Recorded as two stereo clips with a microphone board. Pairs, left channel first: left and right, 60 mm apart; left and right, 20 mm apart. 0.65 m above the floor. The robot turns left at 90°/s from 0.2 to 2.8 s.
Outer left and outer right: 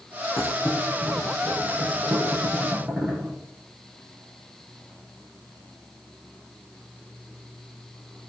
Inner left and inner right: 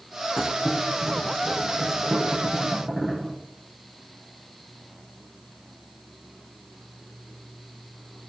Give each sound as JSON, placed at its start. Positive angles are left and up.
{"t": 0.4, "sound": "a thud", "side_deg": 70, "distance_m": 9.0}